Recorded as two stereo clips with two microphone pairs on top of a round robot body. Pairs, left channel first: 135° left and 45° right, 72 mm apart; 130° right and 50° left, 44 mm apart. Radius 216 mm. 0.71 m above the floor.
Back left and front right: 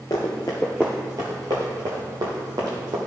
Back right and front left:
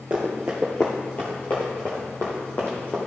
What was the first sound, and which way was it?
Running footsteps, 100° left.